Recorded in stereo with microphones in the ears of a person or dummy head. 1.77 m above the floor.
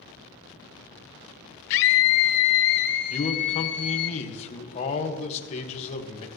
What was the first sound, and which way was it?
A scream, 60° left (ahead or behind).